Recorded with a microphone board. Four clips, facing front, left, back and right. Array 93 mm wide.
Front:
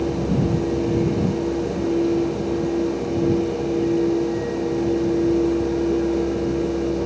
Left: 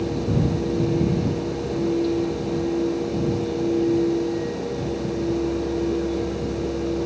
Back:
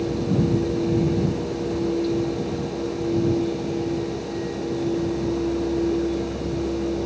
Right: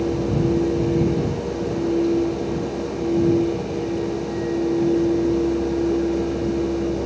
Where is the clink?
I don't hear a clink.